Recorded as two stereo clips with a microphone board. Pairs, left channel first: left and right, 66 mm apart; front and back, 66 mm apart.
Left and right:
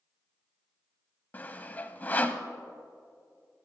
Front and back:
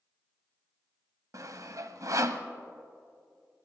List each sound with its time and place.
1.3 s sawing: 150° left, 0.8 m